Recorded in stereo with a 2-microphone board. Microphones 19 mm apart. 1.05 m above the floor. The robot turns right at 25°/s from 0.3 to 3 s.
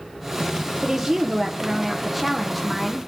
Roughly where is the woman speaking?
Ahead right.